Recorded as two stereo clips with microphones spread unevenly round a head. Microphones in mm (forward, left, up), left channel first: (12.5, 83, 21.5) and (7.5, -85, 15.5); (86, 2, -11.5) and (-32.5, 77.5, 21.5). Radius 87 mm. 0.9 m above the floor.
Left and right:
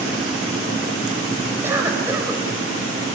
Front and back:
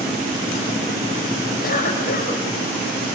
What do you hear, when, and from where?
1.6 s a cough: 15° right, 5 m